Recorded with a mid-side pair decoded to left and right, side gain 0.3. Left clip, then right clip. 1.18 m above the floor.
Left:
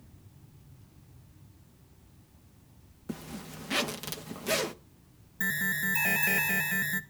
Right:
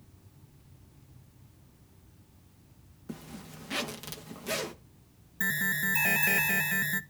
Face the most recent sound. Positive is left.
turn(degrees=-15)